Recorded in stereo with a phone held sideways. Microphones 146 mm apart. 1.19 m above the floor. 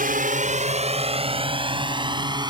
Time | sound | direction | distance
0.0 | a drone | 70° right (ahead or behind) | ?